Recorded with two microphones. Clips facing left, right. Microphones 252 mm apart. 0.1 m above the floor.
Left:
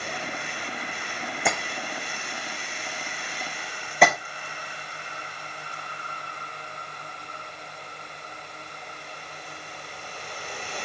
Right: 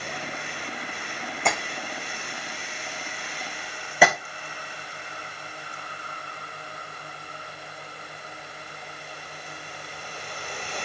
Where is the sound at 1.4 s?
10° left (ahead or behind), 3 m.